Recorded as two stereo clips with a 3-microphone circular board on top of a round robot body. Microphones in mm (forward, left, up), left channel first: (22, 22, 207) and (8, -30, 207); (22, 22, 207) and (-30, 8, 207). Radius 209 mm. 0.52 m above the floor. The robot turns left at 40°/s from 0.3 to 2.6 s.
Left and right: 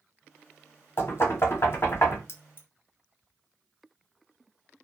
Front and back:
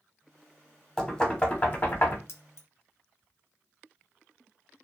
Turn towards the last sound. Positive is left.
turn(degrees=30)